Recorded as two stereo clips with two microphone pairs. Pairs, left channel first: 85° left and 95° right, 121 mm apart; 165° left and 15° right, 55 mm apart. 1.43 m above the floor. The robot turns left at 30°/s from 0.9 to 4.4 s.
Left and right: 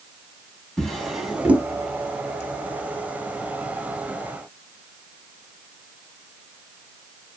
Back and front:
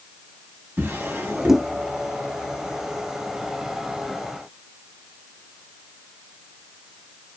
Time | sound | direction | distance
0.8 | a drawer | 5° left | 1.1 m